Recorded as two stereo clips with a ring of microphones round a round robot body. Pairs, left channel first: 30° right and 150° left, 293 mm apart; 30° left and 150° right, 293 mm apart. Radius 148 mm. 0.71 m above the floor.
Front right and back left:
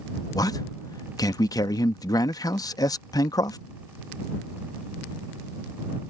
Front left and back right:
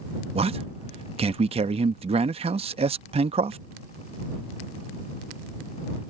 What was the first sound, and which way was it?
A man speaking, 100° right.